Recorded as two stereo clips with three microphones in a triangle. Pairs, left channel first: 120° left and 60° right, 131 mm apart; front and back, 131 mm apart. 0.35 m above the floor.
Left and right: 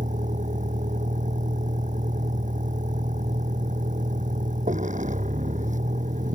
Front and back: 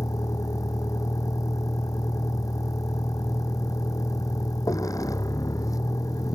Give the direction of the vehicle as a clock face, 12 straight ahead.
2 o'clock.